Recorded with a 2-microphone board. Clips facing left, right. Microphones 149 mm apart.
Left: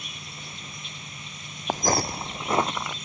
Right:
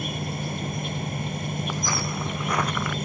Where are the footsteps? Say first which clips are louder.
Left 9 dB; 55° left (ahead or behind); by 3.0 s 20° left (ahead or behind).